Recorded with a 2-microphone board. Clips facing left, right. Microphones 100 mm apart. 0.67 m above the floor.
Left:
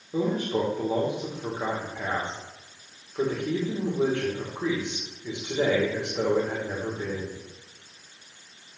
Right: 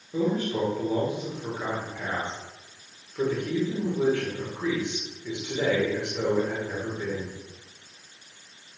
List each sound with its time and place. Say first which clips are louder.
0.1 s a man speaking: even; 20° left (ahead or behind), 2.5 m